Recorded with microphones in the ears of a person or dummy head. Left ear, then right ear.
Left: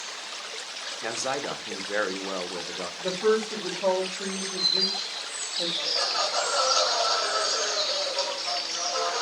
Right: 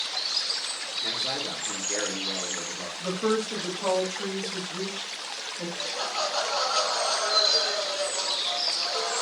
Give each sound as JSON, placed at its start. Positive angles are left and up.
{"t": 1.0, "sound": "a man speaking", "side_deg": 50, "distance_m": 0.5}
{"t": 3.0, "sound": "a woman speaking", "side_deg": 10, "distance_m": 0.8}
{"t": 5.8, "sound": "laughter", "side_deg": -5, "distance_m": 1.3}